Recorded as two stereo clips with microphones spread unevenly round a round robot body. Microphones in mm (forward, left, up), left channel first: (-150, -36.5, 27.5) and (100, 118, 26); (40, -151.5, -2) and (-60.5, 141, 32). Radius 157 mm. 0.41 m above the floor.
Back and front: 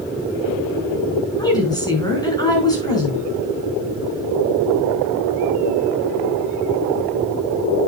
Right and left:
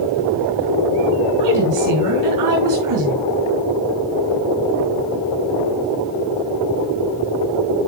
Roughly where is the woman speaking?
Behind left.